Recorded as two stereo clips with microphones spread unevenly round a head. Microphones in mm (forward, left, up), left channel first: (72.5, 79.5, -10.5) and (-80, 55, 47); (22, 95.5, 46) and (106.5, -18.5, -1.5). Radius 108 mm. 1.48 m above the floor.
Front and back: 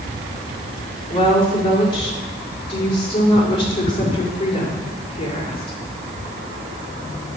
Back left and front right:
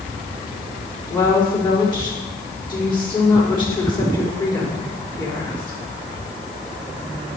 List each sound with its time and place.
1.1 s a woman speaking: 70° left, 4.5 m